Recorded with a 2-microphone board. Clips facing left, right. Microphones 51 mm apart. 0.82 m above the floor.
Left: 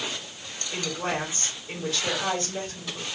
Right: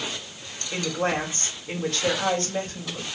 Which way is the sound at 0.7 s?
70° right (ahead or behind).